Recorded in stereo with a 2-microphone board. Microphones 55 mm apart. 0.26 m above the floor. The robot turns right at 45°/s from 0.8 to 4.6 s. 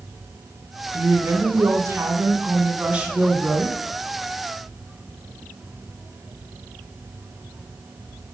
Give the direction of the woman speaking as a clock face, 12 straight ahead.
4 o'clock.